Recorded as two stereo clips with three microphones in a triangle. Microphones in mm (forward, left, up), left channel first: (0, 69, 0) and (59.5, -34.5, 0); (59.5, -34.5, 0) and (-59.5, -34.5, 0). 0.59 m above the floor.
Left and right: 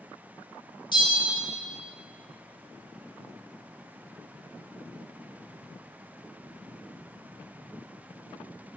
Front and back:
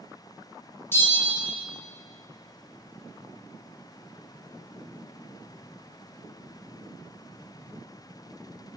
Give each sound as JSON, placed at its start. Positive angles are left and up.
{"t": 0.9, "sound": "a bell", "azimuth_deg": 70, "distance_m": 1.2}